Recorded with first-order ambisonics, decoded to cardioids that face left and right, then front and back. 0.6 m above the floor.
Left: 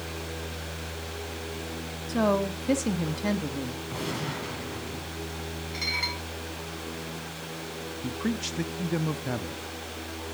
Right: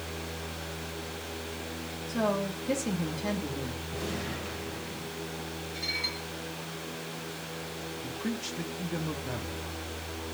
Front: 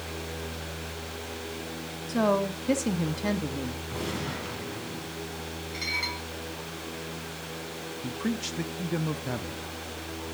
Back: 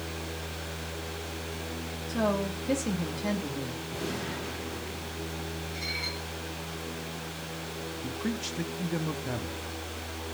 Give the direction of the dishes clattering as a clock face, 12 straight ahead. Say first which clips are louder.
Left 3 dB, front 4 dB; 10 o'clock.